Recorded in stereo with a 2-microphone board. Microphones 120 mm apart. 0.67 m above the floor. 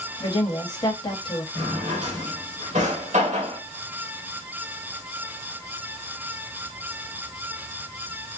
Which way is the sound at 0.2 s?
35° left (ahead or behind).